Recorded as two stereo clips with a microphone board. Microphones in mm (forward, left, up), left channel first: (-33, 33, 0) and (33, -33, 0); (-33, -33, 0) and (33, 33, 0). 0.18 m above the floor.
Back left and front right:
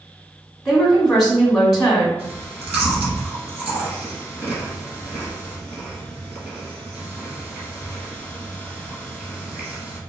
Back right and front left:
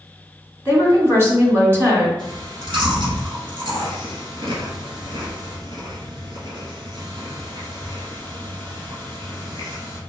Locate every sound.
0.7 s a woman speaking: 30° left, 1.7 m
2.2 s chewing: 20° left, 1.7 m